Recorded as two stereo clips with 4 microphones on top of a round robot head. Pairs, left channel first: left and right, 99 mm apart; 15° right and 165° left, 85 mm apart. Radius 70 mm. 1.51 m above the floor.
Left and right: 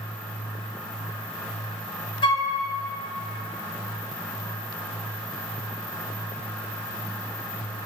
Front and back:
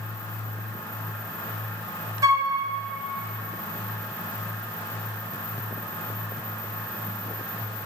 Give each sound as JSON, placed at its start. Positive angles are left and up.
{"t": 2.2, "sound": "a flute", "azimuth_deg": 120, "distance_m": 1.0}